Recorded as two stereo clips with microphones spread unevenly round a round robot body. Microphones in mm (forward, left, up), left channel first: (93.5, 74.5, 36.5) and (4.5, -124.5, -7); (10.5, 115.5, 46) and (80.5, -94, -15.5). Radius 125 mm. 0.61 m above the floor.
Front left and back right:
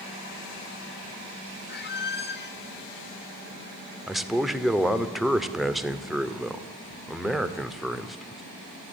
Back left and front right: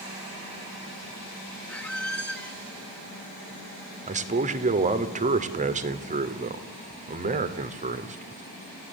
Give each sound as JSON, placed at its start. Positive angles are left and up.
{"t": 1.7, "sound": "a squeak", "azimuth_deg": 25, "distance_m": 2.0}
{"t": 4.1, "sound": "a man speaking", "azimuth_deg": -30, "distance_m": 2.0}